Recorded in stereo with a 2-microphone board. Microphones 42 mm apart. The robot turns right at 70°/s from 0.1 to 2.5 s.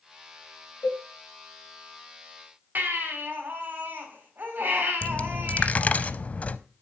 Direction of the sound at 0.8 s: 75° left (ahead or behind).